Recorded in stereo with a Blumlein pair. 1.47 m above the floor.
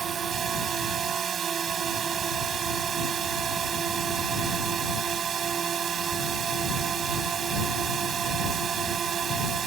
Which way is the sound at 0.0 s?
25° right.